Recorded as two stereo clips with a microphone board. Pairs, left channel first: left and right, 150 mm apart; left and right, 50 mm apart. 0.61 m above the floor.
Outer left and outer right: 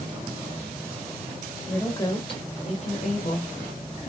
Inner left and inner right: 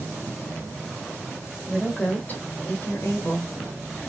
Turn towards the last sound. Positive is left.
turn(degrees=45)  # may be behind; listen again after turning